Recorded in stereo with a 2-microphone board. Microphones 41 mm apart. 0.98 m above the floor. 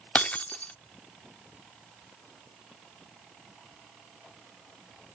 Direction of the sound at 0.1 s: 35° left (ahead or behind).